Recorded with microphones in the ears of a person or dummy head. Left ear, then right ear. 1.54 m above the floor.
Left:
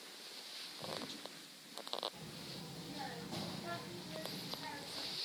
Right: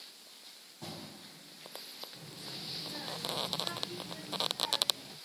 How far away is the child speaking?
About 1.2 m.